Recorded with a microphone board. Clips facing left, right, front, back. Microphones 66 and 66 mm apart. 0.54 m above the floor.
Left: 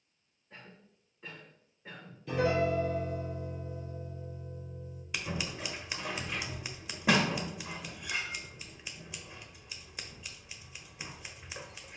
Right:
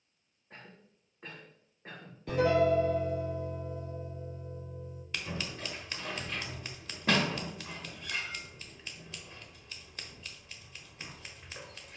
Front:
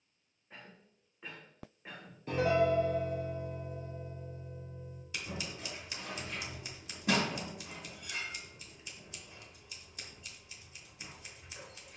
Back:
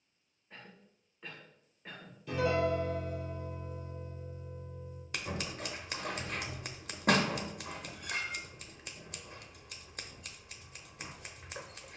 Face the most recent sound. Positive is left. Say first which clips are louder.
# left 2 dB, back 3 dB
turn(degrees=165)